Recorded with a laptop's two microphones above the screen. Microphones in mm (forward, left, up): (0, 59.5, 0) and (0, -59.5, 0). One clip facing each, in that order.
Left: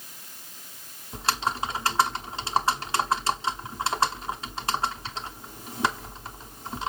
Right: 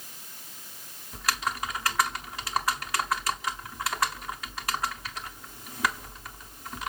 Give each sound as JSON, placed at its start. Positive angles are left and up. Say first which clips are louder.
{"t": 1.1, "sound": "typing on a keyboard", "louder": "left 3 dB", "side_deg": 25, "distance_m": 0.9}